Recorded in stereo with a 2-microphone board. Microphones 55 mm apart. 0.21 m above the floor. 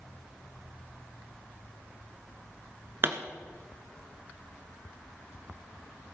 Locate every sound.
3.0 s a pop: 45° right (ahead or behind), 1.1 m